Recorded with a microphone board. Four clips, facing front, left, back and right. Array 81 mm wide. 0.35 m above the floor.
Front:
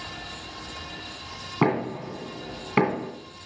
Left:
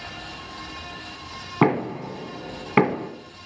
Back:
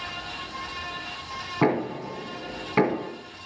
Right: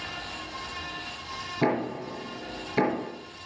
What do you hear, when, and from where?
1.6 s knocking: 80° left, 2 m